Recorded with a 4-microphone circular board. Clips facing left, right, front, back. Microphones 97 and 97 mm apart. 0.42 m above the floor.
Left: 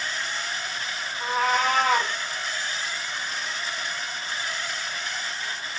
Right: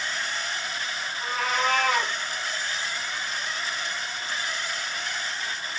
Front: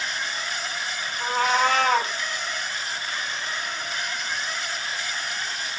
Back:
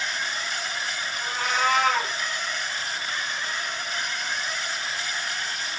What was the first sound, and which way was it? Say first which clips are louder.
A cat meowing: left 4 dB, front 4 dB; 45° left.